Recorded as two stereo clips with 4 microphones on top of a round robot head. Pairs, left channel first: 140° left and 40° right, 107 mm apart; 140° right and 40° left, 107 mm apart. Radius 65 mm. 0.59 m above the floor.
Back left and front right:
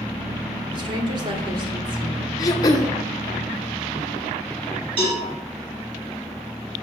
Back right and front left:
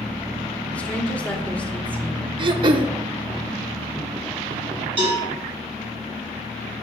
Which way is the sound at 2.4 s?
85° left.